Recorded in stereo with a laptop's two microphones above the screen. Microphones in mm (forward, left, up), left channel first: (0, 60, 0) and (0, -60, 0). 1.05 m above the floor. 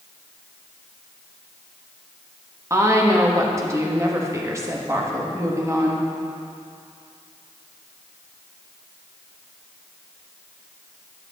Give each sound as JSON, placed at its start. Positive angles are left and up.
{"t": 2.7, "sound": "a woman speaking", "side_deg": -25, "distance_m": 1.3}